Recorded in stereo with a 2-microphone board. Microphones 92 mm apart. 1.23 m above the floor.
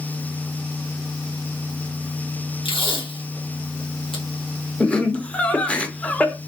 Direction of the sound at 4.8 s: 15° left (ahead or behind).